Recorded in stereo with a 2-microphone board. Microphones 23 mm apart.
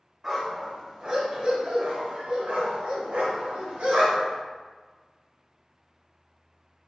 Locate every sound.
0.2 s a dog barking: 20° right (ahead or behind), 1.5 m; by 4.4 s 70° right (ahead or behind), 2 m